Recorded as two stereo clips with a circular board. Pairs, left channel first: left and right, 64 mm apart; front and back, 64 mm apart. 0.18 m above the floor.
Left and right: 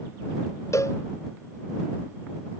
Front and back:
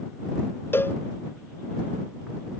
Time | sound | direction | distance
0.7 | a cowbell | 50° left | ?